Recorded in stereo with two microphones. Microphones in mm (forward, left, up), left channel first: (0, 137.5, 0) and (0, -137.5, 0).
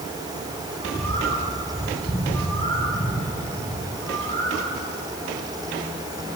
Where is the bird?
20° left (ahead or behind), 6.5 m.